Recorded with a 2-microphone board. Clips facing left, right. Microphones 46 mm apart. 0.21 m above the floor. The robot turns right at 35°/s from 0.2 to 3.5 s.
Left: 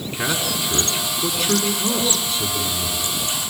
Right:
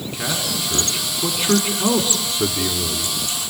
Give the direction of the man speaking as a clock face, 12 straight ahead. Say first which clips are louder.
Left 2 dB; 7 o'clock.